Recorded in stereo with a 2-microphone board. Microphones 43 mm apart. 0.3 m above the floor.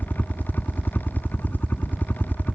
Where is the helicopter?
45° left (ahead or behind).